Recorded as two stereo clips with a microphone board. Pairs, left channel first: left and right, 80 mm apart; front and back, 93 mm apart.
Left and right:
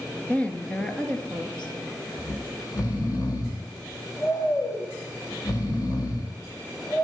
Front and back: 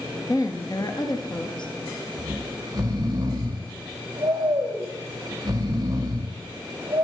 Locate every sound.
0.3 s a woman speaking: 25° left, 1.7 m; by 1.7 s 15° left, 3 m
2.2 s snoring: 130° left, 3.5 m